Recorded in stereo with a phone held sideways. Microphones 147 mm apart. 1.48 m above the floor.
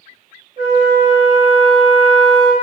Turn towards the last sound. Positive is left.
turn(degrees=-60)  # may be behind; listen again after turning